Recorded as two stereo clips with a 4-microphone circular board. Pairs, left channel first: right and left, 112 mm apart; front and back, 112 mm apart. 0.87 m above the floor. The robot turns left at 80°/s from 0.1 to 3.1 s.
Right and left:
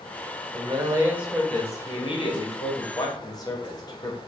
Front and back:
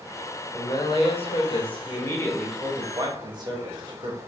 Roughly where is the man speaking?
Left.